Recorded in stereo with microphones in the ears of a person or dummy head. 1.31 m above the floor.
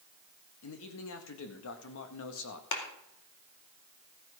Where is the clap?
60° left (ahead or behind), 2.5 m.